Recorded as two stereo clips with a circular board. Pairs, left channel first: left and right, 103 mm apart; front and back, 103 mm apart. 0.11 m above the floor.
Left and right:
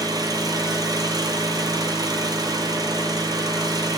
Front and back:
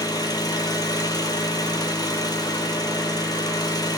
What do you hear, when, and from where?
0.0 s an engine running: 45° right, 0.8 m